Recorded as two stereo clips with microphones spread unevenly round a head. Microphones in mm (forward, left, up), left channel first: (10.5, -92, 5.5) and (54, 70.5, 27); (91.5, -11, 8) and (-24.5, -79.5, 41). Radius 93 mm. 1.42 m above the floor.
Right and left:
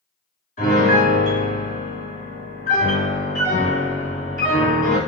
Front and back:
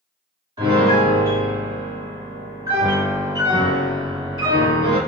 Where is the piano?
140° right, 1.7 m.